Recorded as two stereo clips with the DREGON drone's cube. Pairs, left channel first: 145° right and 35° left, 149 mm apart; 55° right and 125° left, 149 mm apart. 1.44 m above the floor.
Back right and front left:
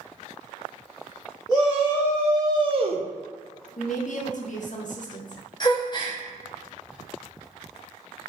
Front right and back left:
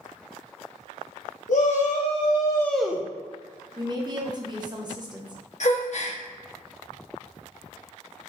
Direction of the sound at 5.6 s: 90° right.